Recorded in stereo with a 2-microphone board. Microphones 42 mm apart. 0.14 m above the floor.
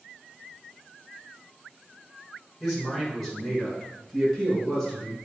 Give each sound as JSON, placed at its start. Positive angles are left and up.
{"t": 2.6, "sound": "a man speaking", "side_deg": 0, "distance_m": 1.8}